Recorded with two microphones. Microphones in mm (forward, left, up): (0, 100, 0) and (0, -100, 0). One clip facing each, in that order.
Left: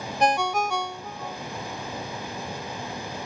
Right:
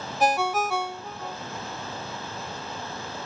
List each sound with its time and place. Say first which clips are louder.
0.2 s a ringtone: even; 5° right (ahead or behind), 0.7 m